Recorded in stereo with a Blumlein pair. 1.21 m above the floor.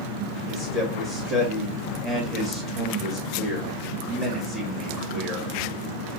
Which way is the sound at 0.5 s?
Straight ahead.